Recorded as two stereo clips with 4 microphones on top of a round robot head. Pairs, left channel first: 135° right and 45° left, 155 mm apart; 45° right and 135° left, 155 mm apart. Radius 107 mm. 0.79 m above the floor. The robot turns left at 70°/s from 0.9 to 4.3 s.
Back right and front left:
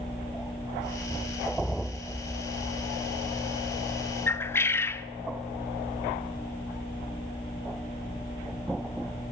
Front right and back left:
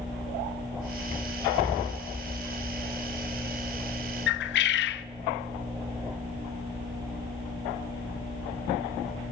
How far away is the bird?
About 0.6 m.